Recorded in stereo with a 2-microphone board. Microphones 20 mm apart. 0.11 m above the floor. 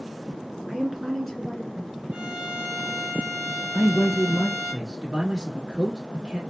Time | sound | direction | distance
0.7 | a woman speaking | 35° right (ahead or behind) | 1.3 m
2.1 | a violin | 35° right (ahead or behind) | 1.3 m
3.7 | a man speaking | 20° right (ahead or behind) | 1.2 m